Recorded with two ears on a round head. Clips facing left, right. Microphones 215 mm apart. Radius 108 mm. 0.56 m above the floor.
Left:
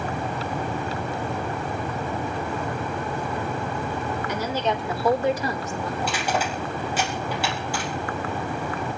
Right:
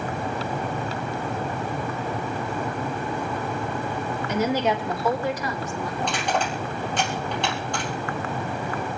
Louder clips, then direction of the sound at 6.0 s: Right 1 dB; 5° left (ahead or behind).